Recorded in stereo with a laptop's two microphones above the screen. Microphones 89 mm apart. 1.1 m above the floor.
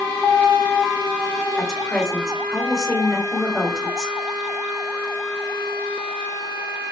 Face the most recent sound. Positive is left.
turn(degrees=0)  # may be behind; listen again after turning